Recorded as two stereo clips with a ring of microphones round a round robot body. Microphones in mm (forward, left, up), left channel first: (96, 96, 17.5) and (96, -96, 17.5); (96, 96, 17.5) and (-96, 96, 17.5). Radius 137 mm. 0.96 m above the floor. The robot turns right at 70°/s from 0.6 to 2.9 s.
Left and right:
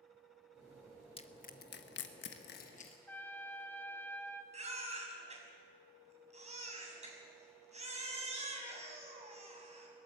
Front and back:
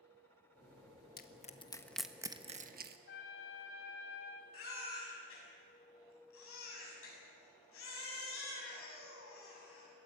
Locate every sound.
1.2 s crushing: 30° left, 1.4 m; by 3.0 s 150° left, 1.4 m
3.1 s a trumpet: 10° left, 2 m
4.5 s a baby crying: 35° right, 6 m